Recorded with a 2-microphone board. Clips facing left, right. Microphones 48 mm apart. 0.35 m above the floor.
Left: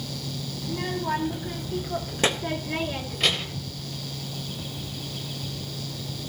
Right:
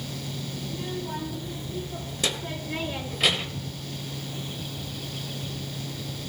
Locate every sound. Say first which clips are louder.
0.6 s a child speaking: left 7 dB; 65° left (ahead or behind), 2 m; by 3.7 s 20° right (ahead or behind), 1.2 m